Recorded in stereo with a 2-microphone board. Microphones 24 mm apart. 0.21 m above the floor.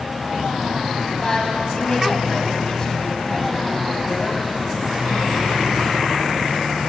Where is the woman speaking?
25° left (ahead or behind), 1.4 m.